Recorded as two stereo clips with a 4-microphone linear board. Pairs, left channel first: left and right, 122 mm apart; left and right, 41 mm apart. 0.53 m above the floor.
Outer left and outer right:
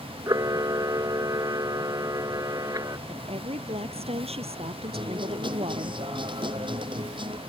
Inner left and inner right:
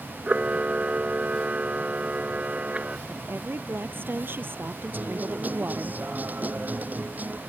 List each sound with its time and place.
0.3 s a camera shutter: 30° right (ahead or behind)
3.1 s a woman speaking: 55° right (ahead or behind)
4.9 s a guitar: 40° right (ahead or behind)